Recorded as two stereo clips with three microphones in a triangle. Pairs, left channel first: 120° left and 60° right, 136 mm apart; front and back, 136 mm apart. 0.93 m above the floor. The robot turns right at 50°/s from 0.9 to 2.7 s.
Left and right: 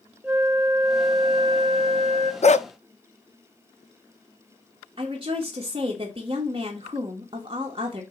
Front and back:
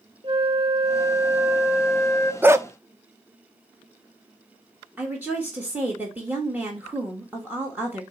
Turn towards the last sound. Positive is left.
turn(degrees=-105)